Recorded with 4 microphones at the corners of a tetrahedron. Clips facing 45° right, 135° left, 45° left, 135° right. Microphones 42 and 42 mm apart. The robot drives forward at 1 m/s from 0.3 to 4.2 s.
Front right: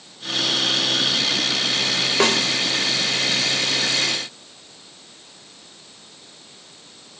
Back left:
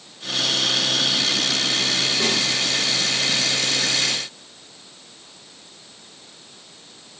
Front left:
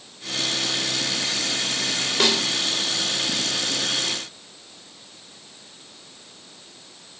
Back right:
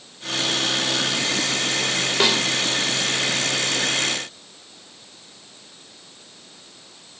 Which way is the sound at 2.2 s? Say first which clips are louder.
Front right 7 dB, back right 1 dB; 55° right.